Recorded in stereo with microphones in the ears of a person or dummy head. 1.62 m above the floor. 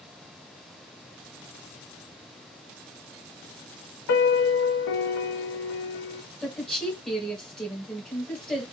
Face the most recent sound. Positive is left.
turn(degrees=0)  # may be behind; listen again after turning